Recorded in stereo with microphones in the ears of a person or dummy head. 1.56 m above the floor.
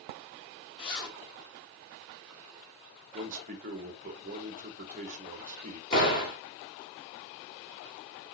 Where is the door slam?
30° left (ahead or behind), 3 m.